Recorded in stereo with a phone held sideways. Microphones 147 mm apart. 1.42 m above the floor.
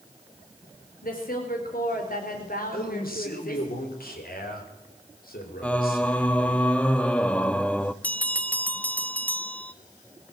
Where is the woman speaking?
75° left (ahead or behind), 4.5 m.